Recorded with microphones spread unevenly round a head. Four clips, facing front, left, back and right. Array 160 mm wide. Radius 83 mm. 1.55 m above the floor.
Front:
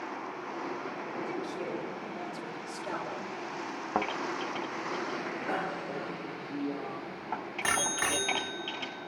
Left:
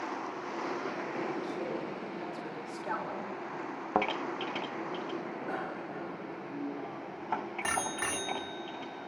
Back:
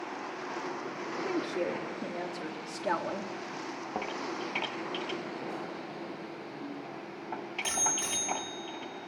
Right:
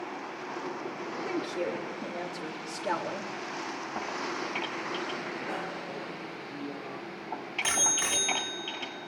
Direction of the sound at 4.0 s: 70° left.